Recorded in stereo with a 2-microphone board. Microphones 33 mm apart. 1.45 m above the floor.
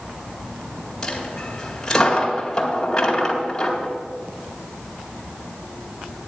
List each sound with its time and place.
1.0 s a dropped coin: 20° left (ahead or behind), 2 m